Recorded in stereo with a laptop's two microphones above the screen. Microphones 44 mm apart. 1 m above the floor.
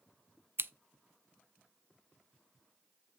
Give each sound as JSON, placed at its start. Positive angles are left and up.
{"t": 0.6, "sound": "scissors", "side_deg": -60, "distance_m": 0.5}